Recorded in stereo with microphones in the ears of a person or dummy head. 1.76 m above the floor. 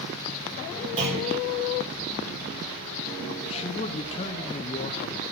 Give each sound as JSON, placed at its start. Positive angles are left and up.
{"t": 1.0, "sound": "a clunk", "side_deg": -40, "distance_m": 5.5}
{"t": 3.4, "sound": "a man speaking", "side_deg": 30, "distance_m": 0.9}